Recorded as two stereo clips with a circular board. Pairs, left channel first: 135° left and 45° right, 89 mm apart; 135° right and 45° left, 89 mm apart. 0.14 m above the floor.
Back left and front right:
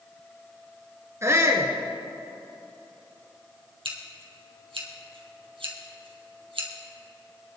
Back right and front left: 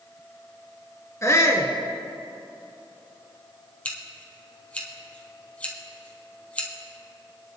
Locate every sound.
1.2 s a shout: 90° right, 1.8 m
3.9 s scissors: 60° right, 2.5 m